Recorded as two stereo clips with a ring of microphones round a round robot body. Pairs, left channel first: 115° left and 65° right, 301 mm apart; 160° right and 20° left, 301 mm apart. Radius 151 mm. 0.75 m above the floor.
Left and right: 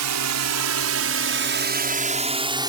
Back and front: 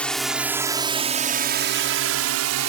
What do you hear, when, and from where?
0.0 s a drone: 70° right; by 2.7 s 10° left